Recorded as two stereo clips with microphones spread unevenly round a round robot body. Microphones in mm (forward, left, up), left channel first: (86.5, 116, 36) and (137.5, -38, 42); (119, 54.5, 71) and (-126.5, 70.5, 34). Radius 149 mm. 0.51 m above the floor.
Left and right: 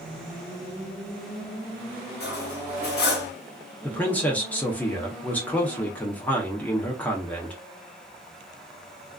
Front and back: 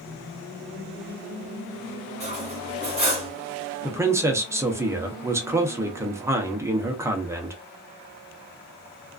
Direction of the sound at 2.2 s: 115° left.